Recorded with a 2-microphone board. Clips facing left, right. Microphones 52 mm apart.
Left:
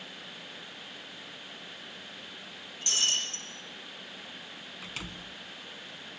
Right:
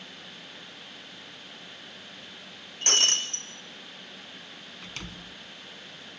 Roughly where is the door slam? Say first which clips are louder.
Even; centre.